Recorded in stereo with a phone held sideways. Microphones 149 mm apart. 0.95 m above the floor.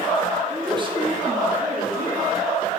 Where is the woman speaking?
15° right (ahead or behind), 1.6 m; by 2.3 s 80° right, 3 m.